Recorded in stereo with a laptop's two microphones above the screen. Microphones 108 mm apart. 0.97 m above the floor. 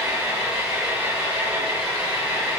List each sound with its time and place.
0.0 s an engine running: 10° right (ahead or behind), 5 m